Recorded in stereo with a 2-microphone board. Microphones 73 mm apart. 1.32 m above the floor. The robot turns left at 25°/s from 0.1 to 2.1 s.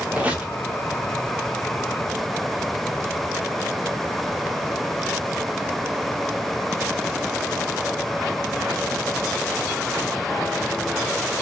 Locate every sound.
0.1 s a squeak: 20° right (ahead or behind), 0.6 m; by 0.5 s 15° right (ahead or behind), 0.6 m